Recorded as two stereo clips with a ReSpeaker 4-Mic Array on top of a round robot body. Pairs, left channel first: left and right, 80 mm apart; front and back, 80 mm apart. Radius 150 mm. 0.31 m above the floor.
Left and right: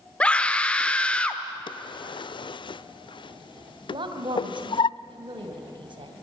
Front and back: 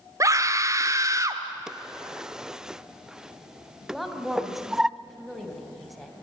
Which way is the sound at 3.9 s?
90° right.